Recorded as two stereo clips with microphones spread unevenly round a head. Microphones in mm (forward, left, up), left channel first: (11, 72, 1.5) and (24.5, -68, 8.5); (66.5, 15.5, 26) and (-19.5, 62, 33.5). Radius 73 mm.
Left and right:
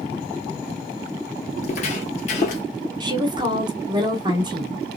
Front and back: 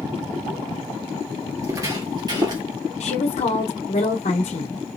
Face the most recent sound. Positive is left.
turn(degrees=-25)